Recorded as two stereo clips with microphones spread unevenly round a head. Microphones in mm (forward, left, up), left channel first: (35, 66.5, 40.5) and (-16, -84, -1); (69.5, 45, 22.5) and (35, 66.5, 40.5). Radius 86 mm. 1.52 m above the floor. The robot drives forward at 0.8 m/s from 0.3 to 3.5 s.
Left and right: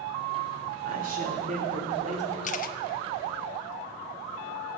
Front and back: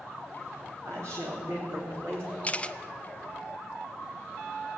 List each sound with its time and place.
0.8 s a woman speaking: 150° right, 3 m; by 2.3 s 160° right, 4 m
2.4 s a camera shutter: 25° left, 0.7 m; by 2.8 s 35° left, 0.5 m